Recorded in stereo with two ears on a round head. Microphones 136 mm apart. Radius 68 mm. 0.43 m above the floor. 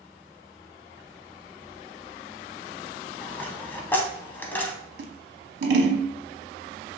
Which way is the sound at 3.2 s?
15° left (ahead or behind).